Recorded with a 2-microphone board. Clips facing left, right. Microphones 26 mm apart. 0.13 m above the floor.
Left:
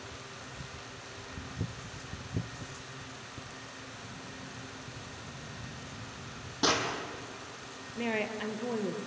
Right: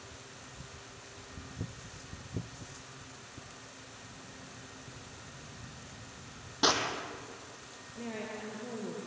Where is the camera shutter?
80° left, 7 m.